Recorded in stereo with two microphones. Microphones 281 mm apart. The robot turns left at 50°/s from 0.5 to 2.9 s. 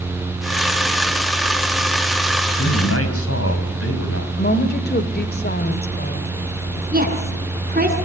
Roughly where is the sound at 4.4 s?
Left.